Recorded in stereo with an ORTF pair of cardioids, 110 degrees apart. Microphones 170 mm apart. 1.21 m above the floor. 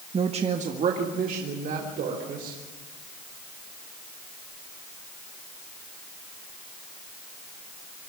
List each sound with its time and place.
0.1 s a woman speaking: 35° right, 1.3 m; by 2.6 s 65° right, 4 m